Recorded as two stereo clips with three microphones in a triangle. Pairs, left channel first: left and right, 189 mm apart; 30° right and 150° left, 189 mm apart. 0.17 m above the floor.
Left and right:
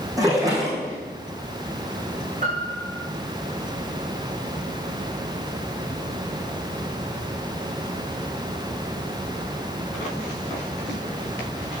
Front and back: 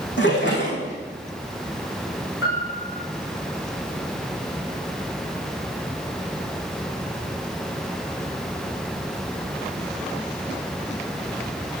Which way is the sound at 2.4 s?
35° right.